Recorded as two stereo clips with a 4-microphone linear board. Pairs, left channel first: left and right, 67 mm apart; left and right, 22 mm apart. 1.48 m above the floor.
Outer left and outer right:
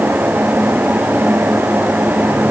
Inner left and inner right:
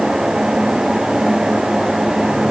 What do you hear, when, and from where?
Only background noise.